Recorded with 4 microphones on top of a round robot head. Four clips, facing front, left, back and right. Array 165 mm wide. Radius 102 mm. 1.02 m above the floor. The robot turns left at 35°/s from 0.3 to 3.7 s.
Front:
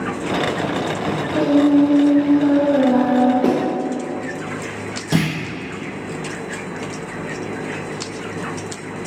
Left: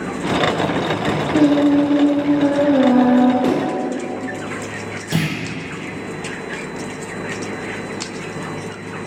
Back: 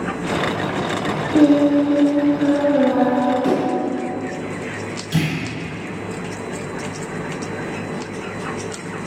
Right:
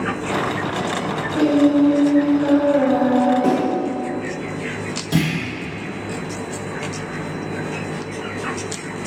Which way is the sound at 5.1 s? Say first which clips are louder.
Right 2 dB, front 2 dB; 5° left.